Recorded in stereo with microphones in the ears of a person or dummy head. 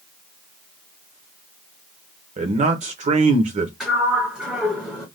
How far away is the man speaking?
About 0.9 m.